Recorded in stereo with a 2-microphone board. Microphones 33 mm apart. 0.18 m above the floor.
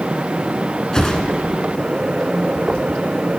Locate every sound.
0.9 s a whoosh: 20° left (ahead or behind), 1.0 m